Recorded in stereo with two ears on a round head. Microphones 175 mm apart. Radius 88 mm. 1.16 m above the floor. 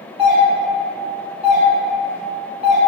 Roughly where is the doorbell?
Centre.